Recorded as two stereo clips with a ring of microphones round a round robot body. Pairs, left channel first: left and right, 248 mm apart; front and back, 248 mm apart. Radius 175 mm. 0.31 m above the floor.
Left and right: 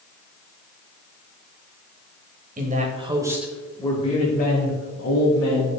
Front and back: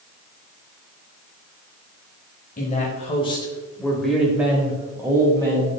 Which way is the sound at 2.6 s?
50° right.